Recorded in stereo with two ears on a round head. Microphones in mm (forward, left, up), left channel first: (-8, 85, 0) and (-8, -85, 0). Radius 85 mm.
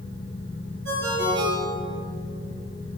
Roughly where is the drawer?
I don't hear a drawer.